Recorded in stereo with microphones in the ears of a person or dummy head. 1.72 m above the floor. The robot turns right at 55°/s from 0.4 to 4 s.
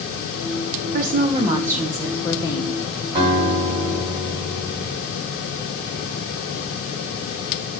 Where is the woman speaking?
55° right, 0.5 m; by 2.8 s 50° left, 0.5 m.